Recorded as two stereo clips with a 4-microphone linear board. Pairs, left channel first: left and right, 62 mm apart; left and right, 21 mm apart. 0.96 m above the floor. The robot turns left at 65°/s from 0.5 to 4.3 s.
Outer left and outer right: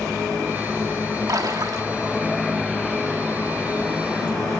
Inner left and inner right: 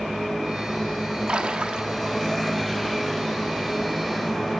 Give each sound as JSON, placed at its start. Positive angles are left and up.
{"t": 1.3, "sound": "a splash", "azimuth_deg": -70, "distance_m": 1.1}